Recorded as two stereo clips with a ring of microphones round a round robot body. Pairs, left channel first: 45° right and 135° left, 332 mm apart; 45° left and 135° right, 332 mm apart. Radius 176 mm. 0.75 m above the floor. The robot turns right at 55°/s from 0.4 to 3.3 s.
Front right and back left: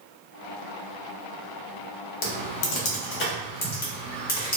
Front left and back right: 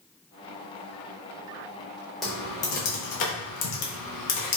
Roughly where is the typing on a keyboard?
Ahead right.